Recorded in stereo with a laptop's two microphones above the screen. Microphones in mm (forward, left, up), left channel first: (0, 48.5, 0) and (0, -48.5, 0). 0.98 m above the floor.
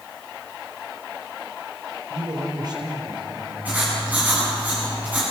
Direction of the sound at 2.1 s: 45° right (ahead or behind).